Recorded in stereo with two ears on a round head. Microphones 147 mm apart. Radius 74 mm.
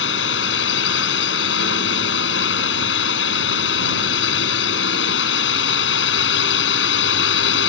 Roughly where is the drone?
Left.